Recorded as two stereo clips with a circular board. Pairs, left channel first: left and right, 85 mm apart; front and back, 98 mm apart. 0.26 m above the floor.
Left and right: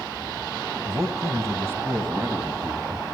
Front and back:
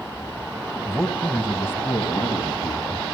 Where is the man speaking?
85° right, 1.7 m; by 3.0 s 25° right, 2.5 m.